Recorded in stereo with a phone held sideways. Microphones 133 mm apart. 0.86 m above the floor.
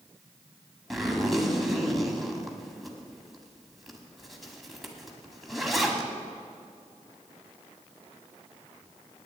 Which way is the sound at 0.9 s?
Centre (ahead or behind).